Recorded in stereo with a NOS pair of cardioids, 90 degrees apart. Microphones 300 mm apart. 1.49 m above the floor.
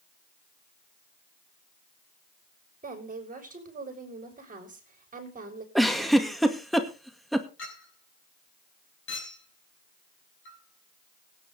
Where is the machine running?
No machine running in this recording.